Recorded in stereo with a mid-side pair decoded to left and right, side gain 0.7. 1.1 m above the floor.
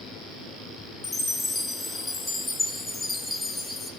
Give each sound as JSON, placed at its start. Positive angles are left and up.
{"t": 1.0, "sound": "a chime", "azimuth_deg": 15, "distance_m": 4.0}